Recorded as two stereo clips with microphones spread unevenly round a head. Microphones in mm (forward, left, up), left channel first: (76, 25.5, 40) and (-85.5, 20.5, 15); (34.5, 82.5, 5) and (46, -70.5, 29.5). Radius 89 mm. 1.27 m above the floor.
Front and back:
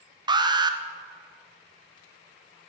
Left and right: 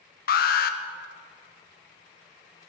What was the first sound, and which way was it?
An alarm, 120° left.